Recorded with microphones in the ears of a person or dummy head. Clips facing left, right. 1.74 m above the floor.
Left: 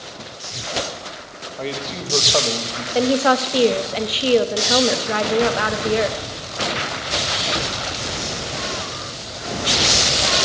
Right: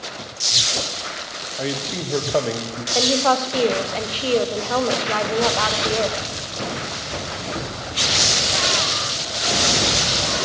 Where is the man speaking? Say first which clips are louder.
Right 1 dB; 15° right (ahead or behind), 1.2 m.